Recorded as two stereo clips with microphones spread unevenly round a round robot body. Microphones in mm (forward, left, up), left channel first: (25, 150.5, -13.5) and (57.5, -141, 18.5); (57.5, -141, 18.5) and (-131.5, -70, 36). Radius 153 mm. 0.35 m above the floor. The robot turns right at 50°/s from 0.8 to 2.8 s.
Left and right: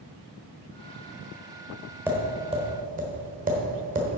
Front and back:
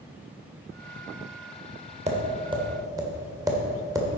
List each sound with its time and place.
2.1 s tapping: 170° right, 1.6 m; by 4.2 s 135° right, 1.6 m